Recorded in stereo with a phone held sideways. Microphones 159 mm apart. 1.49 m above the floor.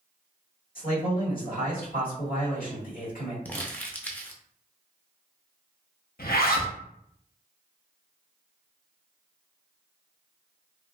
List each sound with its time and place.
0.8 s a man speaking: 65° left (ahead or behind), 2.0 m
3.5 s crumpling: 10° left (ahead or behind), 0.5 m
6.2 s a zipper: 70° left (ahead or behind), 0.6 m